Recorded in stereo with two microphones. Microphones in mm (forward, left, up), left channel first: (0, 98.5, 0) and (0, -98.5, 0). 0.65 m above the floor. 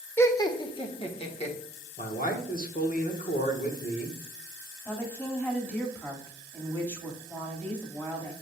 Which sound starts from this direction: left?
A man speaking, at 2.0 s.